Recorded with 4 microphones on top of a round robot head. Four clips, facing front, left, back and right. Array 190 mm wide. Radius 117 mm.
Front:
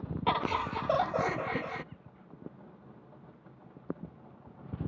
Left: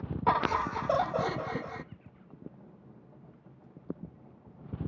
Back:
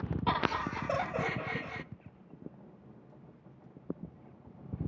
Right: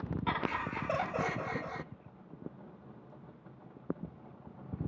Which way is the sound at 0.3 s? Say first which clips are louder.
Left 9 dB, front 2 dB; 65° left.